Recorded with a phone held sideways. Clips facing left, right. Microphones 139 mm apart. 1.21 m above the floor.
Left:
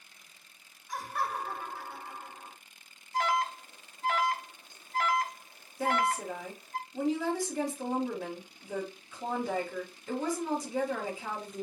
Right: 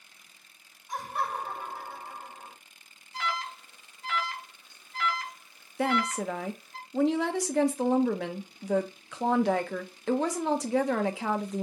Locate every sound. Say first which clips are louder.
0.9 s laughter: right 2 dB; 25° right (ahead or behind), 3 m
3.1 s an alarm: left 5 dB; 45° left (ahead or behind), 0.8 m
5.8 s a woman speaking: right 2 dB; 80° right, 0.9 m